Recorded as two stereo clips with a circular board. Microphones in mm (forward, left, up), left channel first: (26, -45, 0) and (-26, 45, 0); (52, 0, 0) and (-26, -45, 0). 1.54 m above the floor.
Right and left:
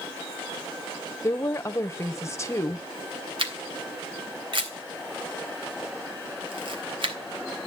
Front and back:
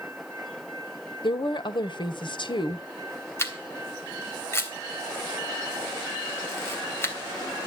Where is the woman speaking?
5° left, 1.5 m.